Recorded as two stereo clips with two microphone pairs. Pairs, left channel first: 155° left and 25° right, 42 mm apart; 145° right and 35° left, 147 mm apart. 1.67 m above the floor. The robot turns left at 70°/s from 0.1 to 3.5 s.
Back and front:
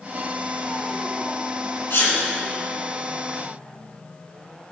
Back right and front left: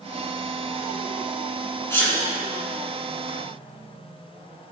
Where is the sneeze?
145° left, 2.5 m; by 2.2 s 125° left, 2.5 m.